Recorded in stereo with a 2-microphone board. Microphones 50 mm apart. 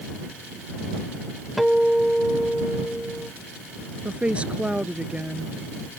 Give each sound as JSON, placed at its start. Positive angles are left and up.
{"t": 1.6, "sound": "a guitar", "side_deg": 0}
{"t": 4.0, "sound": "a woman speaking", "side_deg": -25}